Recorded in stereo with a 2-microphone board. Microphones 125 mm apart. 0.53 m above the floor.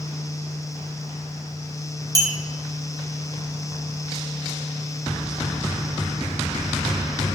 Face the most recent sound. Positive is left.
turn(degrees=-30)  # may be behind; listen again after turning